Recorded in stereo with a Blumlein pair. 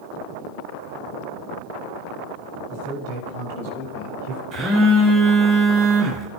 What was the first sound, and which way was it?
A man speaking, 50° right.